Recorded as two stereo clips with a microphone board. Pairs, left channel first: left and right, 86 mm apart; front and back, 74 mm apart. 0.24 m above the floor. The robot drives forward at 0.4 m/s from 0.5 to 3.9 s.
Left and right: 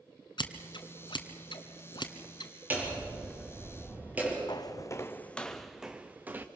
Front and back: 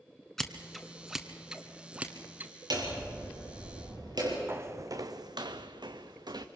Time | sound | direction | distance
0.4 | scissors | 80° left | 1.4 m
2.7 | hammering | 160° right | 5 m
4.5 | footsteps | 125° left | 0.9 m